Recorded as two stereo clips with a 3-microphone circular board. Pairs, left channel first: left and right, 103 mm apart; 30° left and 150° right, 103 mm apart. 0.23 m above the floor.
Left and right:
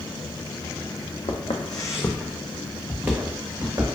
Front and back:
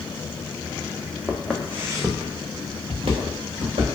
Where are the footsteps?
110° left, 0.7 m; by 3.9 s 150° right, 1.5 m.